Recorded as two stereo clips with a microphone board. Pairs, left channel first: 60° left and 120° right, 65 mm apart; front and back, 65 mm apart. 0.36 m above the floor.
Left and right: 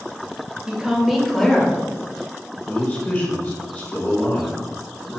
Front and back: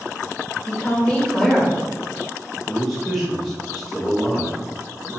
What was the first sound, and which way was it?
A woman speaking, 55° right.